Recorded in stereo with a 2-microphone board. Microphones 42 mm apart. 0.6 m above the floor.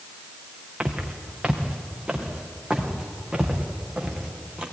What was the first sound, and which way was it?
Footsteps, 25° right (ahead or behind).